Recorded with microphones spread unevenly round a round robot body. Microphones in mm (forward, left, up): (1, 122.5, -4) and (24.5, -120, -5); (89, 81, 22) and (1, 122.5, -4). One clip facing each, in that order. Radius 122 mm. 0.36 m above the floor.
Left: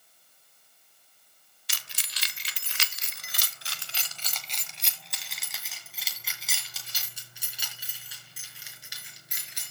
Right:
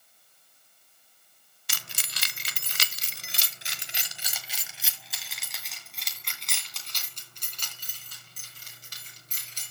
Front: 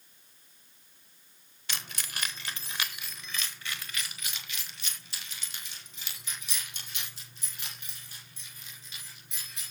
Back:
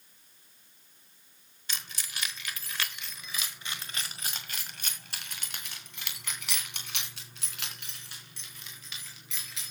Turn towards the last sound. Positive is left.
turn(degrees=175)